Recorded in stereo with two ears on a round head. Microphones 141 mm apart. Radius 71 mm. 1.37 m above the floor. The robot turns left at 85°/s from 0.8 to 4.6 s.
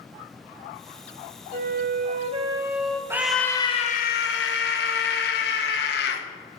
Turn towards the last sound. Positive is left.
turn(degrees=70)